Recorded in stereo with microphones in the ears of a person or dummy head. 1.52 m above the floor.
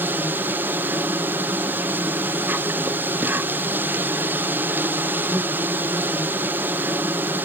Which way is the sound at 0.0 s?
10° right (ahead or behind).